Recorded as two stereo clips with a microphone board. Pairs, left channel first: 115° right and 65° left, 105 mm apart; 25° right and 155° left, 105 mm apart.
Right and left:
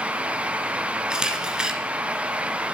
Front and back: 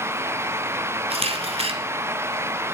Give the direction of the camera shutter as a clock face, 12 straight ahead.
7 o'clock.